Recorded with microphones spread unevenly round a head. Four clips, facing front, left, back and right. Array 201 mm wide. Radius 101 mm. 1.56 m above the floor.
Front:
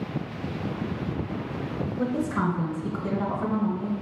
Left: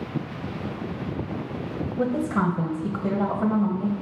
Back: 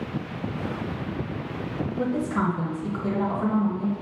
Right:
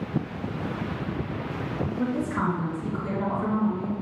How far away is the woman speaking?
About 1.5 m.